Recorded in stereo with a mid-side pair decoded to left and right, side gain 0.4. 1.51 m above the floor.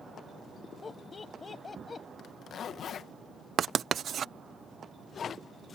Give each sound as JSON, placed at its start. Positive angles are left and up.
{"t": 0.8, "sound": "laughter", "azimuth_deg": 35}
{"t": 2.2, "sound": "a zipper", "azimuth_deg": 65}
{"t": 3.6, "sound": "writing", "azimuth_deg": -60}